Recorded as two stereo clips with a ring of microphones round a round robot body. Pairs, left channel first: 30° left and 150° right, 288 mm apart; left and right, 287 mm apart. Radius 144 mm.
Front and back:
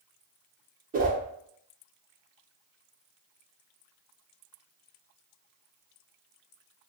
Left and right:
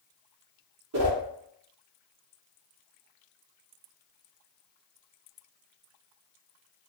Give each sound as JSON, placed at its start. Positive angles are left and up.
{"t": 0.9, "sound": "a whoosh", "azimuth_deg": -100, "distance_m": 0.6}